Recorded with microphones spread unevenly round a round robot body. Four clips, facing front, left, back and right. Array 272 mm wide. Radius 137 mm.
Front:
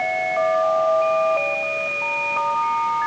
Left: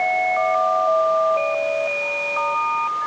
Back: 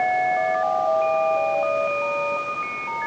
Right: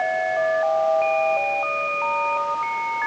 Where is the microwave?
I don't hear a microwave.